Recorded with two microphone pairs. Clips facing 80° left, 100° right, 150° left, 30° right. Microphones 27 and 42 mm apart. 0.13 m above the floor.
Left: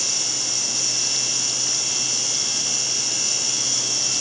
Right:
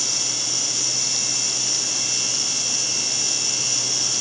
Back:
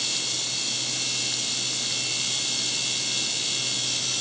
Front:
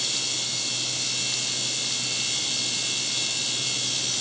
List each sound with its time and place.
Only background noise.